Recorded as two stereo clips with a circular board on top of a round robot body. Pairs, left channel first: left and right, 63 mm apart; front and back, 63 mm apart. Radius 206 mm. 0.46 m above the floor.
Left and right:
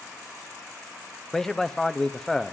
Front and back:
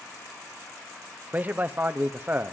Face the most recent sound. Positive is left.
turn(degrees=165)